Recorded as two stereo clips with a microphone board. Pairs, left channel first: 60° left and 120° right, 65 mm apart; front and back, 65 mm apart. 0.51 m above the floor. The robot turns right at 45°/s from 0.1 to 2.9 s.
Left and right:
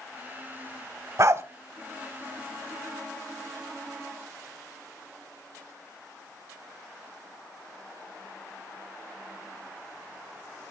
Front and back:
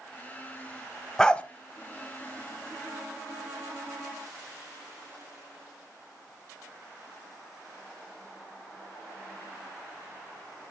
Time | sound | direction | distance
1.2 | a dog barking | 80° right | 0.6 m